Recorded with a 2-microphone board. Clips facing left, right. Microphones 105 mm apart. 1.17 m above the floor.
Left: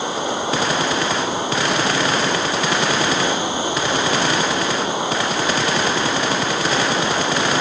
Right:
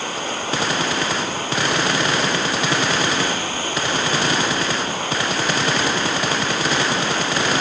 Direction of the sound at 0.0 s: 20° left (ahead or behind).